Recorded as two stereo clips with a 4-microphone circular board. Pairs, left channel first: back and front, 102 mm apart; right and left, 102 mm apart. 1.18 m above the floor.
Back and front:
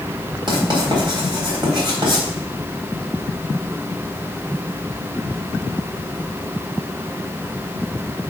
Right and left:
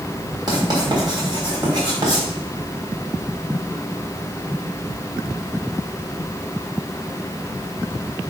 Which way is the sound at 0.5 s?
45° left.